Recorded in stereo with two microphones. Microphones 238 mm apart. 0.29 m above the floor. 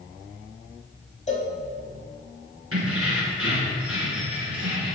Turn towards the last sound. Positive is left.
turn(degrees=-70)  # may be behind; listen again after turning